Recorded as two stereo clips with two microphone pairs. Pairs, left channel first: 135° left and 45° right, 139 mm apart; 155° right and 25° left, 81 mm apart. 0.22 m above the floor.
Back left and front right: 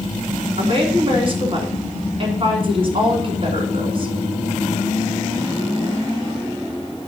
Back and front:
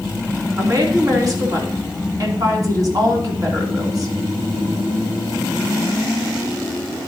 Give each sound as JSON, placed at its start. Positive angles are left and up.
{"t": 0.6, "sound": "a woman speaking", "azimuth_deg": -5, "distance_m": 2.5}